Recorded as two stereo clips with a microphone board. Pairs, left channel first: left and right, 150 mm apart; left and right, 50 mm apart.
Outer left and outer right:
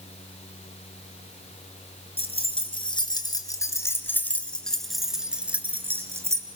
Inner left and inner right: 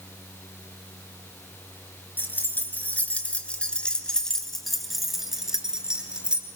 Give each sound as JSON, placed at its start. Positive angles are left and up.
{"t": 2.2, "sound": "keys jangling", "side_deg": 40, "distance_m": 2.0}